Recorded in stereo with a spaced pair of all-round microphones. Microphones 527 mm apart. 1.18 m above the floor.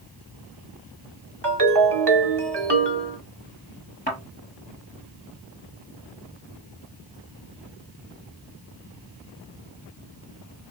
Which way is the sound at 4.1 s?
15° left (ahead or behind).